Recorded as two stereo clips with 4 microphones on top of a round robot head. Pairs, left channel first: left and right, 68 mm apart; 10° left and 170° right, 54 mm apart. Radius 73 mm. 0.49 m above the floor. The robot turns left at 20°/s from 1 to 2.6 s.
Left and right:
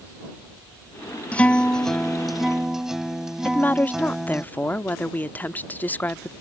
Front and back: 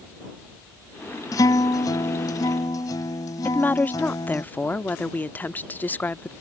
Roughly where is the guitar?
Ahead.